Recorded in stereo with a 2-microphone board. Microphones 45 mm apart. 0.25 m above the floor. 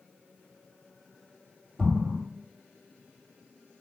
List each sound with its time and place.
1.8 s an explosion: 10° right (ahead or behind), 1.8 m